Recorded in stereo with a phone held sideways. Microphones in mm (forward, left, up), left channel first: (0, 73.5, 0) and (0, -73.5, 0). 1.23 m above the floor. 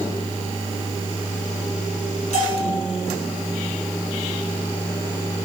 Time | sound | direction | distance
2.3 | a bell | 55° left (ahead or behind) | 6 m